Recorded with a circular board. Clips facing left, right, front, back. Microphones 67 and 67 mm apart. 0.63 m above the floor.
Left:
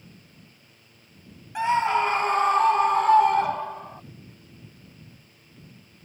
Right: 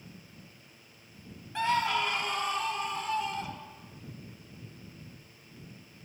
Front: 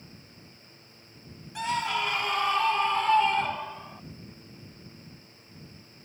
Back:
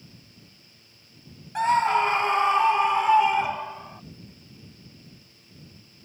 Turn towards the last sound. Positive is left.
turn(degrees=100)